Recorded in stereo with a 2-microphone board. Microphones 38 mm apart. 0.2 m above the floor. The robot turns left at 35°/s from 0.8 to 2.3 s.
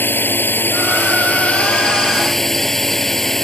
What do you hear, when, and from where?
0.0 s a drone: 65° left; by 3.5 s 10° left